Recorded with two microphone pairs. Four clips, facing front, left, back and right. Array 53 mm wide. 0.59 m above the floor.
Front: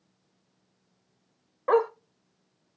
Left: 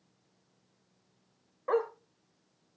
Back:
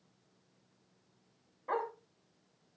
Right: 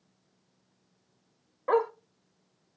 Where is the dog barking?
15° right, 0.9 m.